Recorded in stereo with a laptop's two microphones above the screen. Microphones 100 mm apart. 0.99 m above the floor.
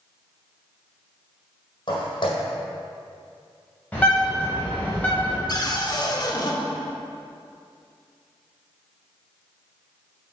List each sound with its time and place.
1.9 s footsteps: 55° left (ahead or behind), 1.8 m
3.9 s a bird: 15° left (ahead or behind), 2.5 m
5.5 s a cupboard door: 40° left (ahead or behind), 0.8 m